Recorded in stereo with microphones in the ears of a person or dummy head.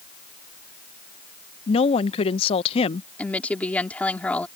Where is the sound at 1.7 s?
30° left (ahead or behind).